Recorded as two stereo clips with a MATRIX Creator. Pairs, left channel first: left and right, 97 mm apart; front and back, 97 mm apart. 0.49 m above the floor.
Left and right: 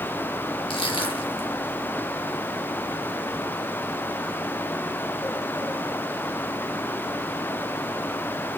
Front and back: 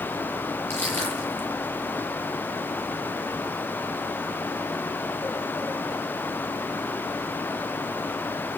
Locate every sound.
0.7 s crushing: 65° left, 5 m